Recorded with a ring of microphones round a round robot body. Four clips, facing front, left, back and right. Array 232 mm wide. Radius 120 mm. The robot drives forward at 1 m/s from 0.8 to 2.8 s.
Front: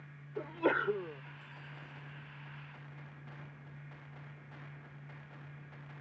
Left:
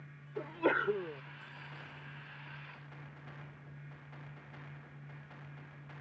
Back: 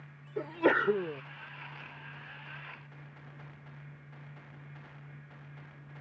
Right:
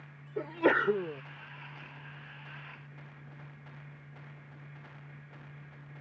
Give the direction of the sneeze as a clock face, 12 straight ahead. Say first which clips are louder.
Right 5 dB, back 5 dB; 5 o'clock.